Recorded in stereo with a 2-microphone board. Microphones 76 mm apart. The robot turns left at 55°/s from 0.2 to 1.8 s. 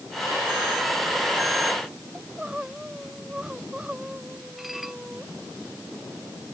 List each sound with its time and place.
2.1 s crying: 15° right (ahead or behind)
4.6 s dishes clattering: 5° right (ahead or behind)